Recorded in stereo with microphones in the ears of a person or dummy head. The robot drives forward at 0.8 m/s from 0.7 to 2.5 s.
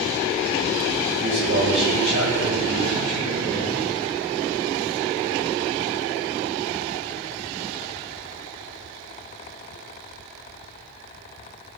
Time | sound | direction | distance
1.2 | a man speaking | 65° right (ahead or behind) | 9.5 m